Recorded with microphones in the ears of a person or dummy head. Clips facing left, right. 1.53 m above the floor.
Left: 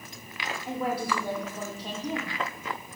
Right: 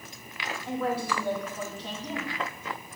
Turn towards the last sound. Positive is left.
turn(degrees=15)  # may be behind; listen again after turning